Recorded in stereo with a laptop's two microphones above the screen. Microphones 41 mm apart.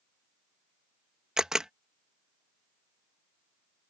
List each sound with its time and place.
1.4 s a camera shutter: 15° right (ahead or behind)